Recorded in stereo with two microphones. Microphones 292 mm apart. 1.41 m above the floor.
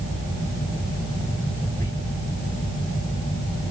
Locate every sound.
1.8 s whispering: 85° right, 3 m